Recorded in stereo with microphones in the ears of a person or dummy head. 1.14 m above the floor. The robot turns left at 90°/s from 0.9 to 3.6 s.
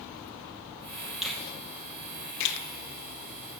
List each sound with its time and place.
1.2 s a finger snap: 5° right (ahead or behind), 0.8 m; by 2.6 s 55° left (ahead or behind), 0.8 m